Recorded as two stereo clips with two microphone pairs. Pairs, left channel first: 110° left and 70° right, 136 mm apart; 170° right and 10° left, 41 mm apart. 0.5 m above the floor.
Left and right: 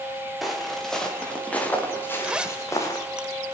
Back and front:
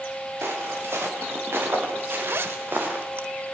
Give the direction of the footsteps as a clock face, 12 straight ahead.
11 o'clock.